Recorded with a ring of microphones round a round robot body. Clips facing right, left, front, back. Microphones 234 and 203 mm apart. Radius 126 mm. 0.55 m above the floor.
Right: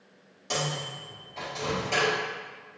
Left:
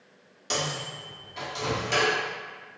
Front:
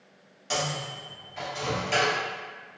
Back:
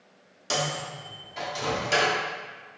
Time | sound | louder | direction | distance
0.5 | a microwave | even, back 1 dB | 155° left | 1.2 m